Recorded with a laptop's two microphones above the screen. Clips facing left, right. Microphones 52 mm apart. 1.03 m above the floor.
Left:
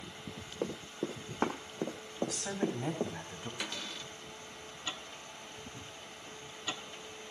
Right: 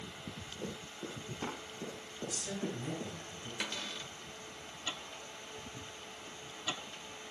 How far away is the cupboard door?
About 2.5 m.